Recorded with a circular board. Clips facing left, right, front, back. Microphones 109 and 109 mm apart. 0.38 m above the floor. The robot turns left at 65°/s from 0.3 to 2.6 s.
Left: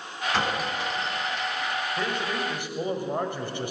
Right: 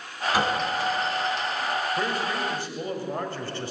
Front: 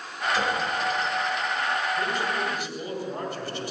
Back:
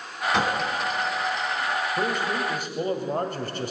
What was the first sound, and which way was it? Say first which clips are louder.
A clink: right 3 dB, back 2 dB; 170° right.